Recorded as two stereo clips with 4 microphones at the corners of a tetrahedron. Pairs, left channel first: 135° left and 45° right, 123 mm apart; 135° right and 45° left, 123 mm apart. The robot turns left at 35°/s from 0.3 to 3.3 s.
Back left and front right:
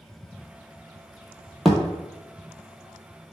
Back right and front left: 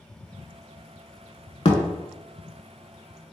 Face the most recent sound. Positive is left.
turn(degrees=165)